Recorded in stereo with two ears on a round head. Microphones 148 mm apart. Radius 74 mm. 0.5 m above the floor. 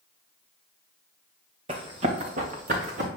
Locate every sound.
1.7 s running footsteps: 35° right (ahead or behind), 2 m; by 3.1 s 50° right (ahead or behind), 2.5 m